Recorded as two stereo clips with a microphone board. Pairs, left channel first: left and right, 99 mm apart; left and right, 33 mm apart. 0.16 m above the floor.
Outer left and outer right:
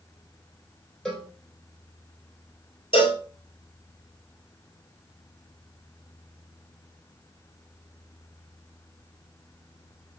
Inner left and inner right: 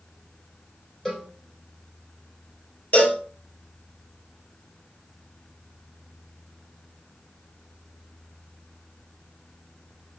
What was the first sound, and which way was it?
A cowbell, 10° left (ahead or behind).